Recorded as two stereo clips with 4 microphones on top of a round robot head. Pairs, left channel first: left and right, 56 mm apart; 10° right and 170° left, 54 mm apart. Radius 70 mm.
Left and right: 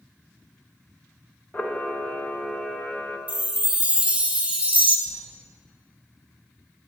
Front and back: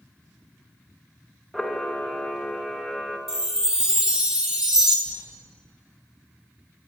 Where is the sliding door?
10° left, 3.5 m.